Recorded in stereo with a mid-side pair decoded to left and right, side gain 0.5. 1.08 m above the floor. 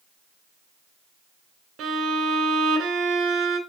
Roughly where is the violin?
Ahead right.